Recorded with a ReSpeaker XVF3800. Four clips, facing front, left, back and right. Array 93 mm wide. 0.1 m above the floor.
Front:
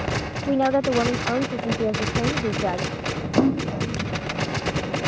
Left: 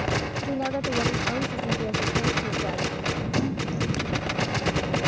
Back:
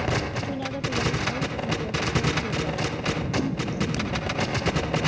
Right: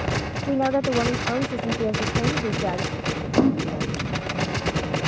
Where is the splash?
45° right.